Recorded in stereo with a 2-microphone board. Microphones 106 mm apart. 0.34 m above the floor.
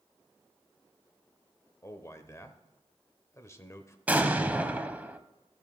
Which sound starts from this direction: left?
A man speaking, at 1.8 s.